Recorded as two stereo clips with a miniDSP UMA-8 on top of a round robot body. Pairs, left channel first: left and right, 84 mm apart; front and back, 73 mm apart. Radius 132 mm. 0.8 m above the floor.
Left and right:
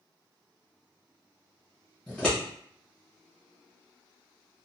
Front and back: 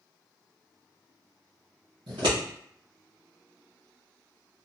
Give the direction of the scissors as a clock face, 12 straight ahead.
6 o'clock.